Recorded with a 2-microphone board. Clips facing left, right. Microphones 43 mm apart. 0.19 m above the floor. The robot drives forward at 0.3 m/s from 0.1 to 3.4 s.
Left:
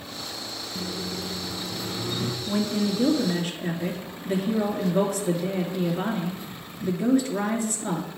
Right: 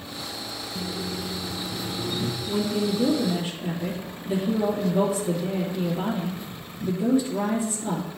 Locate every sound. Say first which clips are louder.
0.8 s a microwave: right 1 dB; 35° left (ahead or behind), 1.2 m
2.5 s a woman speaking: even; 65° left (ahead or behind), 2 m; by 8.1 s 60° left (ahead or behind), 2.5 m